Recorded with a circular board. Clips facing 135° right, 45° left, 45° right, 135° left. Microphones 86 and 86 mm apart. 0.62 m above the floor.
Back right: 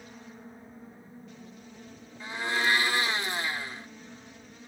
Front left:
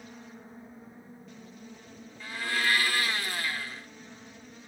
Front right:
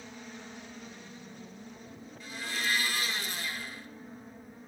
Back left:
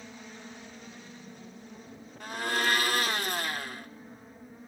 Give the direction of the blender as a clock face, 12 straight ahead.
7 o'clock.